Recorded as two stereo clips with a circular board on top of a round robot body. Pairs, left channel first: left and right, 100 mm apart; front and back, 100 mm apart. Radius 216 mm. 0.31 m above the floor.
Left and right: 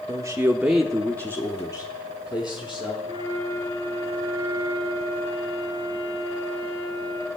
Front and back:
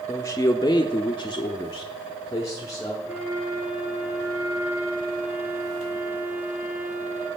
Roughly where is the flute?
Behind right.